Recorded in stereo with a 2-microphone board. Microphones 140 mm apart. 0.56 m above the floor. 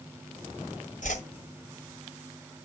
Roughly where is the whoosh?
Left.